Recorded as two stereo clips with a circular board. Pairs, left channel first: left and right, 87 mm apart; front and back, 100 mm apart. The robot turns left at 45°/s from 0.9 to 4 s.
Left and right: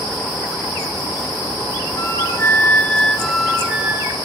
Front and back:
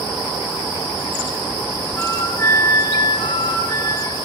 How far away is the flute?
About 0.5 m.